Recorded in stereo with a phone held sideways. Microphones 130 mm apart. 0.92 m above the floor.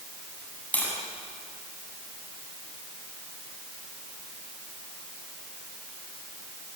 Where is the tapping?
15° left (ahead or behind), 8 m.